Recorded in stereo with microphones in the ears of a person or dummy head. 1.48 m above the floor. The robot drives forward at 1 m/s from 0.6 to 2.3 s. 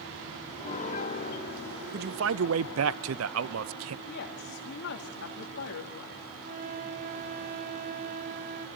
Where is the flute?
40° right (ahead or behind), 1.2 m.